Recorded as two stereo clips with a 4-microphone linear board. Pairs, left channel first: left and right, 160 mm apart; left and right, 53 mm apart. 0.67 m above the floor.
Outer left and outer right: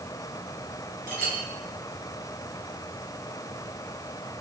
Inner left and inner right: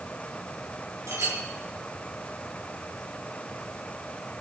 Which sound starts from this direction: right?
A clink, at 1.1 s.